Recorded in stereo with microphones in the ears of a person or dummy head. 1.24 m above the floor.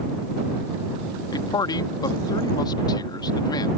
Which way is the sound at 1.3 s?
25° left (ahead or behind).